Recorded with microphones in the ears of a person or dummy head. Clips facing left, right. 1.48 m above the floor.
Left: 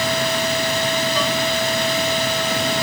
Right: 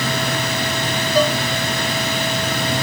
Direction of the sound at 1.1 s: 40° right (ahead or behind).